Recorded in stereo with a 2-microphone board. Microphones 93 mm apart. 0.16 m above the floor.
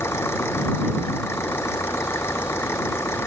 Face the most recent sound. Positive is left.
turn(degrees=25)  # may be behind; listen again after turning